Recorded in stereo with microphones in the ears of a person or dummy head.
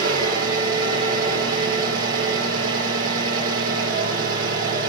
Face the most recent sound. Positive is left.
turn(degrees=-75)  # may be behind; listen again after turning